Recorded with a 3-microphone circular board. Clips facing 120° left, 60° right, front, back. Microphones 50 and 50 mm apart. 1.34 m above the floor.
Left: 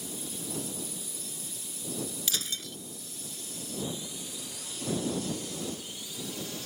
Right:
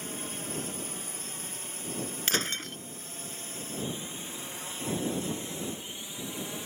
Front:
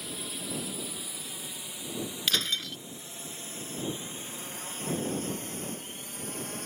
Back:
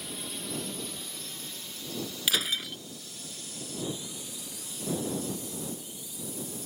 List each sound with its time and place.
0.0 s a drone: 85° right; by 6.7 s 5° left
2.3 s breaking glass: 95° right